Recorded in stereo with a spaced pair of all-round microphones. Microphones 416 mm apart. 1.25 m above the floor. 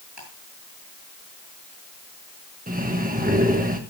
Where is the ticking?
80° right, 8 m.